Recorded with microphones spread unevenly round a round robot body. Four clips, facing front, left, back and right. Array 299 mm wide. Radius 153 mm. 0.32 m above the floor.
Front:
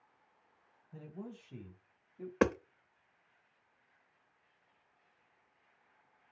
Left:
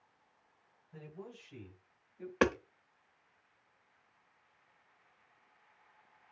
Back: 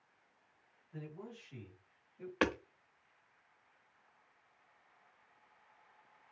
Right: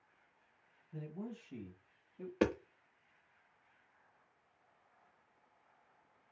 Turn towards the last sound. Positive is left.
turn(degrees=0)